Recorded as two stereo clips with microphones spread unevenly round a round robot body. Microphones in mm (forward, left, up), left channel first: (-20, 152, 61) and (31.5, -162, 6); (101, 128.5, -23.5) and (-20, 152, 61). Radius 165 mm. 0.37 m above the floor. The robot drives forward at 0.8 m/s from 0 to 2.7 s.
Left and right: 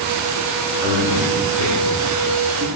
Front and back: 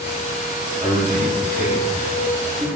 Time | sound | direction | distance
0.8 | a man speaking | 140° right | 3.5 m